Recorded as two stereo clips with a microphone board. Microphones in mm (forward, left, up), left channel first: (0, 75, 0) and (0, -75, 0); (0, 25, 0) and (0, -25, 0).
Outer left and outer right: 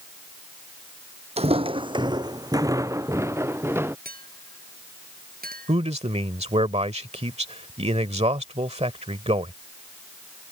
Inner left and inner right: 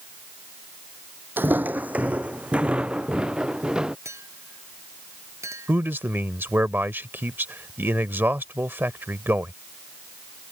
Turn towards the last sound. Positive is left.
turn(degrees=-45)  # may be behind; listen again after turning